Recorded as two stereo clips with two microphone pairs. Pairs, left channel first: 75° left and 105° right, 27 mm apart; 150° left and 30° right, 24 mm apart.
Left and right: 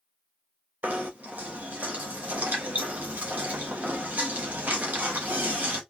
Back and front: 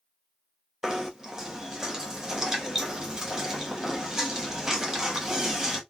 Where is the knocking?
100° right, 1.0 m.